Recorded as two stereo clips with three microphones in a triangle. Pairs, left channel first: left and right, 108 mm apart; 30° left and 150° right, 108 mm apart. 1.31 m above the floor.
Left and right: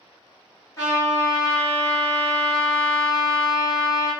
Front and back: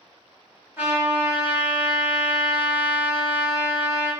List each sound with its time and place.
0.8 s a trumpet: 140° left, 1.5 m